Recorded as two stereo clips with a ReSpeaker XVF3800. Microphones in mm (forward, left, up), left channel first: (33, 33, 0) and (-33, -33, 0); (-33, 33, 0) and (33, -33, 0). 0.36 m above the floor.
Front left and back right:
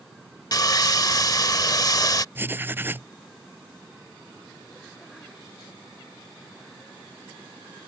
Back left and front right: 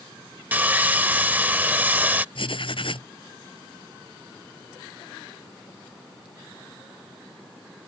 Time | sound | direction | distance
0.5 | sawing | 20° left | ?
2.4 | writing | 160° left | ?